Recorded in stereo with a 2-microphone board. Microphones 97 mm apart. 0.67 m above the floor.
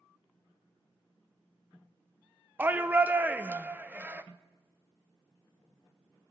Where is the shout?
20° right (ahead or behind), 0.5 m.